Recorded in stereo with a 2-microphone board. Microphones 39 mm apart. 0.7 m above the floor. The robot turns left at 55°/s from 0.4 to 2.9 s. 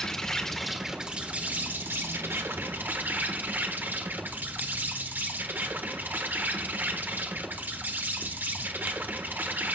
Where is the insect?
15° left, 1.5 m; by 9.7 s 125° right, 1.5 m.